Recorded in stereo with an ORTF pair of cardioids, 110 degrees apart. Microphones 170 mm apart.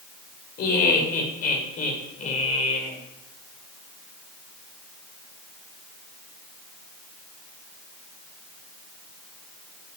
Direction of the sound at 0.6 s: 65° left.